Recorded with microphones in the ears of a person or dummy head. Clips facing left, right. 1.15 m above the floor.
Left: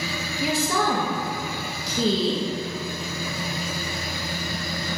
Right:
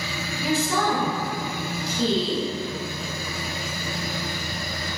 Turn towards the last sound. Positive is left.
turn(degrees=65)  # may be behind; listen again after turning